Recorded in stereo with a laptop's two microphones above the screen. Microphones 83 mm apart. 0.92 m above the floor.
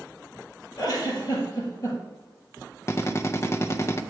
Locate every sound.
0.8 s a giggle: 40° left (ahead or behind), 3.5 m
2.9 s a drill: 35° left (ahead or behind), 0.5 m